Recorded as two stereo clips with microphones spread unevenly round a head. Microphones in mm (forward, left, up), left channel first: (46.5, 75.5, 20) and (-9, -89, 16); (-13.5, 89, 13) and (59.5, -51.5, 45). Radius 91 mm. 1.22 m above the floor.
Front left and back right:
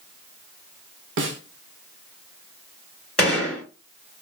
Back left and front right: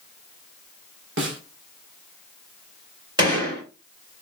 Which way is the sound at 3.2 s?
10° right.